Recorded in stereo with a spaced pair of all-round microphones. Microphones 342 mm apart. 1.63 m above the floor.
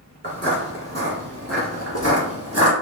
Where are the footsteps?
25° right (ahead or behind), 1.8 m; by 2.7 s 45° right (ahead or behind), 2.5 m.